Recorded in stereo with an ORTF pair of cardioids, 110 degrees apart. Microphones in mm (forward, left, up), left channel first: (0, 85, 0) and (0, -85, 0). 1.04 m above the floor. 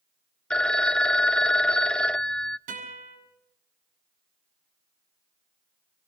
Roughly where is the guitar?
Ahead right.